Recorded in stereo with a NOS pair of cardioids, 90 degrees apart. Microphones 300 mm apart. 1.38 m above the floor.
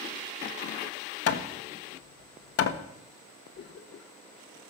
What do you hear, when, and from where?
1.3 s hammering: 55° left, 1.6 m
3.5 s a cough: 45° left, 1.1 m